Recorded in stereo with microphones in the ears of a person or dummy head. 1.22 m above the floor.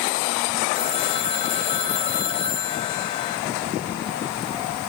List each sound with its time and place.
0.7 s a phone ringing: 40° left (ahead or behind), 2.5 m